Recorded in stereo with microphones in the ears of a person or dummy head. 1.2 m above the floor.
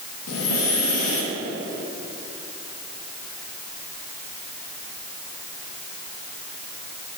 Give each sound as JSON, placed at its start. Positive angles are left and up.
{"t": 0.3, "sound": "breathing", "side_deg": 80, "distance_m": 1.3}